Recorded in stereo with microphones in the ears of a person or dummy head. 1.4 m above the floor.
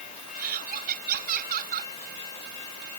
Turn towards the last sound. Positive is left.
turn(degrees=-50)  # may be behind; listen again after turning